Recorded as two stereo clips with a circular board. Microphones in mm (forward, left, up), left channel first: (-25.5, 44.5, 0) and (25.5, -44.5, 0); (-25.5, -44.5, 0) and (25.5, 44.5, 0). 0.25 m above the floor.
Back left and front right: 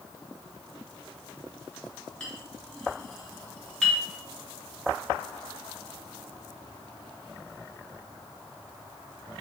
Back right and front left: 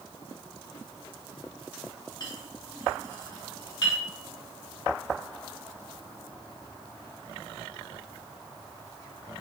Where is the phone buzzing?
No phone buzzing in this recording.